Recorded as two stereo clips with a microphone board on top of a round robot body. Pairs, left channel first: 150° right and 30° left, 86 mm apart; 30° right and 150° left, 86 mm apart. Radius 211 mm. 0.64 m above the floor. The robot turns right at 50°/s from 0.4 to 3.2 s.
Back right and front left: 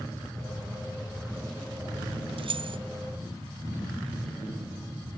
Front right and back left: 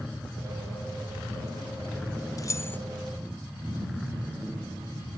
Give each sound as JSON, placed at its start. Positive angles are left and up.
{"t": 2.4, "sound": "keys jangling", "azimuth_deg": 20, "distance_m": 0.6}